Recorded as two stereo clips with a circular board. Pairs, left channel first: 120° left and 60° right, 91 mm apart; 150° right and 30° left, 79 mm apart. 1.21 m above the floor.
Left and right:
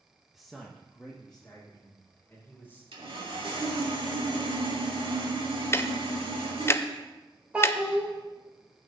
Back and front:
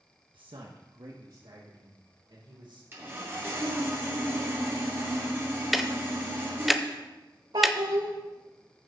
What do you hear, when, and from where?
0.3 s a man speaking: 25° left, 0.8 m; by 2.8 s 45° left, 3.5 m
2.9 s sawing: 35° right, 2.5 m
5.7 s ticking: 115° left, 0.5 m
7.5 s a child speaking: 15° left, 1.6 m